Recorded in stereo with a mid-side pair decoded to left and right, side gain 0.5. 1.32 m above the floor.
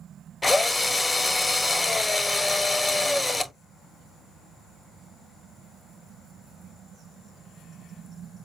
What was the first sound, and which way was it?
A drill, 10° left.